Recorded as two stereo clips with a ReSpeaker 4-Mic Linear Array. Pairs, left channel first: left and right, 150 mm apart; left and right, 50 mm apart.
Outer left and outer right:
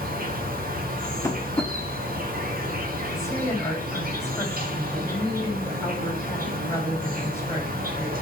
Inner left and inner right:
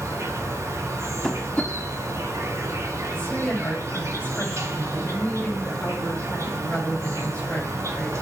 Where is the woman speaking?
15° left (ahead or behind), 4 m.